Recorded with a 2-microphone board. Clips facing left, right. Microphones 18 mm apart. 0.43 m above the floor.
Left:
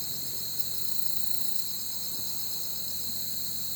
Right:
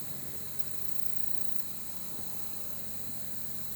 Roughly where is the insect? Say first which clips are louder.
Left 10 dB; left.